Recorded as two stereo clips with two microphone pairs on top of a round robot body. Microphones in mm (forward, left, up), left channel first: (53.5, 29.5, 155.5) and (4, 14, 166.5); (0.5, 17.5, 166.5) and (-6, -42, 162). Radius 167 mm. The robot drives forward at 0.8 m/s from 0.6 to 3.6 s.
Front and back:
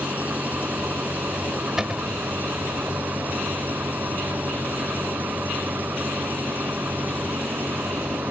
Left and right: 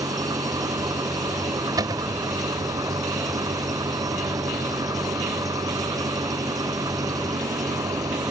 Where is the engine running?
100° right; by 8.3 s 105° right.